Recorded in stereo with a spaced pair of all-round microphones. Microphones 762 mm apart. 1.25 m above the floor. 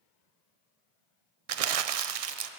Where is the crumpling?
55° right (ahead or behind), 0.5 m.